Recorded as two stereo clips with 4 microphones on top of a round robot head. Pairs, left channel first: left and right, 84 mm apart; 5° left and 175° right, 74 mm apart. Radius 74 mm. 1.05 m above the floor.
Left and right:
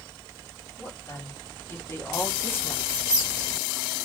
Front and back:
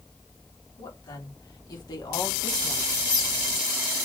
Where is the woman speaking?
35° left, 3.5 m; by 2.8 s 25° left, 1.6 m.